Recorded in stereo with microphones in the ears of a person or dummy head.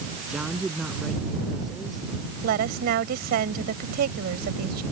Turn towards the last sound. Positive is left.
turn(degrees=-55)  # may be behind; listen again after turning